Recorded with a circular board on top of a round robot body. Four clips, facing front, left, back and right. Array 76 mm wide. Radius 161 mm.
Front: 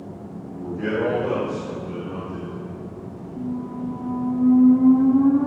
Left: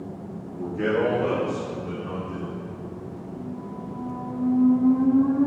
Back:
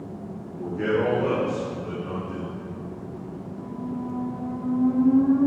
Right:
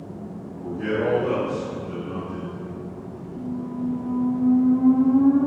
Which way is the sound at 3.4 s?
25° right.